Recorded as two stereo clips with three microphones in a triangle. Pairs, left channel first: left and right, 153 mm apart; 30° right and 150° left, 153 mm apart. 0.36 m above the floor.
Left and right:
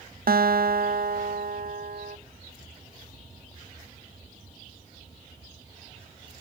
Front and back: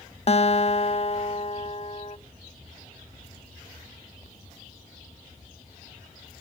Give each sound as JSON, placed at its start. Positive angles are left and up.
{"t": 0.3, "sound": "a guitar", "azimuth_deg": -80, "distance_m": 0.5}